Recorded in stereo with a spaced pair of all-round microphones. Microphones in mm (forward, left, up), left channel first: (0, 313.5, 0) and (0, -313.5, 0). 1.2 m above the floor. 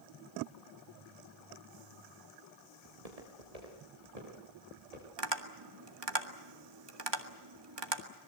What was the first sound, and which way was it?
Footsteps, 70° right (ahead or behind).